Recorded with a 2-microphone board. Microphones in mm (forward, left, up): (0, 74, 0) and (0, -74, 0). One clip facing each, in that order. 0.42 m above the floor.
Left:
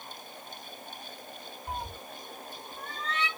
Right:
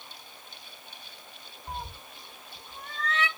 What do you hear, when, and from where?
1.7 s a cat meowing: 10° left (ahead or behind), 0.6 m; by 3.3 s 75° right (ahead or behind), 1.0 m